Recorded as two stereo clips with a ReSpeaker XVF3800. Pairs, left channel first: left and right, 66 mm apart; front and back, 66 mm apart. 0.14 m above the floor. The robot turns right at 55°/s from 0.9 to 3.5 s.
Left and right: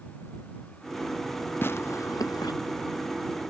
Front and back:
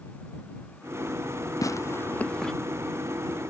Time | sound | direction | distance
1.6 | tearing paper | 35° left | ?